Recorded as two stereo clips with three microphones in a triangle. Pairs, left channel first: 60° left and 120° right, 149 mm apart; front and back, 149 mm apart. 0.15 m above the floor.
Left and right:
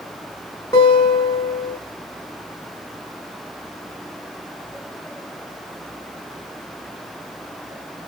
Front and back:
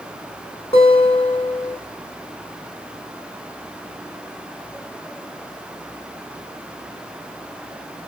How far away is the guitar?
About 1.5 m.